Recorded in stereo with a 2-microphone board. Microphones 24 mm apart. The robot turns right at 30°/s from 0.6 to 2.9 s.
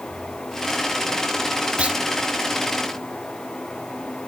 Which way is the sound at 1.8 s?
60° right (ahead or behind).